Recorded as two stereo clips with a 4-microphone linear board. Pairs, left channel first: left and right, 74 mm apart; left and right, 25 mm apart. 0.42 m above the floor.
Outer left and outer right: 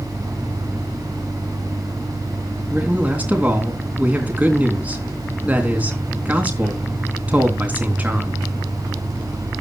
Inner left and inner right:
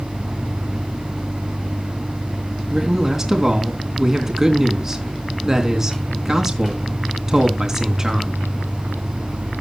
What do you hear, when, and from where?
2.7 s a man speaking: 20° right (ahead or behind), 3.5 m